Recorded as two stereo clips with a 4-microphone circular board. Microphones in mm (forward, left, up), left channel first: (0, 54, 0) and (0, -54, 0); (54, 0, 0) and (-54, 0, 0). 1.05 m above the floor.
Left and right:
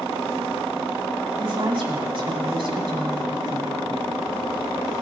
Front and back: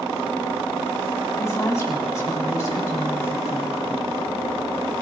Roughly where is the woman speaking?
Ahead right.